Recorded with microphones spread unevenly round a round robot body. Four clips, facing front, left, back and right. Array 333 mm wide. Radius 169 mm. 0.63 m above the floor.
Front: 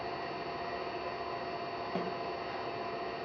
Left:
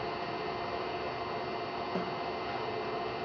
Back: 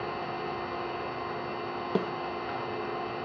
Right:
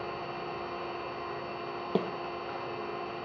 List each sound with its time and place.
0.0 s an engine running: 155° left, 2.5 m
1.9 s a snare drum: 135° right, 0.7 m